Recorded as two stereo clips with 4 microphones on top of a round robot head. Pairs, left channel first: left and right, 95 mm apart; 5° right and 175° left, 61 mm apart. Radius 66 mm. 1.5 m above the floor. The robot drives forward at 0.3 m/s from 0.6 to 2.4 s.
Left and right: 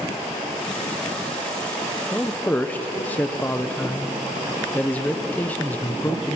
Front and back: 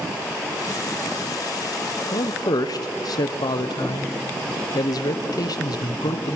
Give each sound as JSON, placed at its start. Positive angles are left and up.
{"t": 2.1, "sound": "a man speaking", "azimuth_deg": 10, "distance_m": 1.1}